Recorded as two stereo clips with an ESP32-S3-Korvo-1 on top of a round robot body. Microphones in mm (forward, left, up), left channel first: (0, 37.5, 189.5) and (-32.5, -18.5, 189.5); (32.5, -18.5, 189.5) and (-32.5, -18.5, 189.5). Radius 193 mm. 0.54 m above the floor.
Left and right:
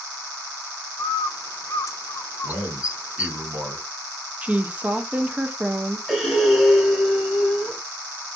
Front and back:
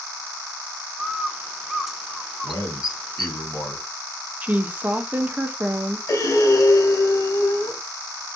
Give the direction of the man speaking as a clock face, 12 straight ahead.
2 o'clock.